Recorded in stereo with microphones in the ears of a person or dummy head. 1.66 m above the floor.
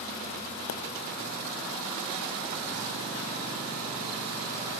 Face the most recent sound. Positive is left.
turn(degrees=65)  # may be behind; listen again after turning